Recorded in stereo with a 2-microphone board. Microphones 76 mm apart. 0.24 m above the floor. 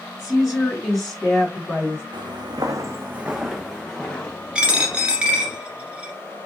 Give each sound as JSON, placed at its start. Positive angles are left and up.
{"t": 0.2, "sound": "a woman speaking", "side_deg": -15, "distance_m": 2.5}
{"t": 2.1, "sound": "footsteps", "side_deg": -75, "distance_m": 0.9}
{"t": 4.5, "sound": "a dropped coin", "side_deg": -15, "distance_m": 1.3}